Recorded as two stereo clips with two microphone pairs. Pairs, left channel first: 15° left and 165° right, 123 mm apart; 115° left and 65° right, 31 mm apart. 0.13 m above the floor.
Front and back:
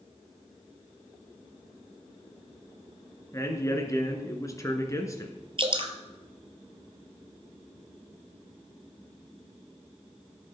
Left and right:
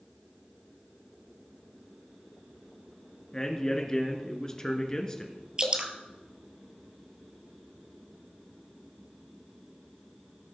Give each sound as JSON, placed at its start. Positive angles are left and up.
{"t": 3.3, "sound": "a man speaking", "azimuth_deg": 55, "distance_m": 1.6}
{"t": 5.6, "sound": "dripping", "azimuth_deg": -125, "distance_m": 1.1}